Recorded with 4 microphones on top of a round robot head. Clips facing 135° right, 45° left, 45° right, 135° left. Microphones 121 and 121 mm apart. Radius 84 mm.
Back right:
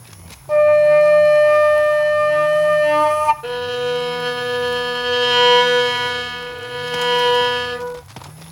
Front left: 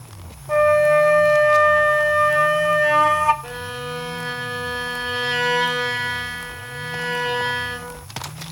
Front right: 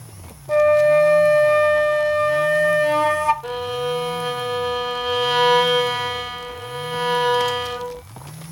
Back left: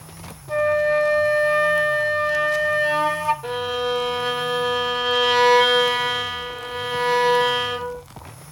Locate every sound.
0.5 s a flute: 80° right, 0.9 m
3.4 s a violin: 135° right, 1.0 m